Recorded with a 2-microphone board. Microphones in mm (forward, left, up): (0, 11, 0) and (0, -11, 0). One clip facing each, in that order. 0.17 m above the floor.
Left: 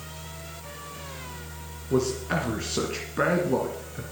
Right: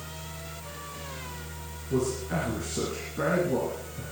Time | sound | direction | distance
1.9 | a man speaking | 45° left (ahead or behind) | 2 m